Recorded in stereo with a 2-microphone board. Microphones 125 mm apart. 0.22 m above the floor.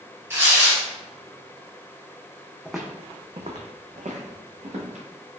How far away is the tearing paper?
About 1.5 m.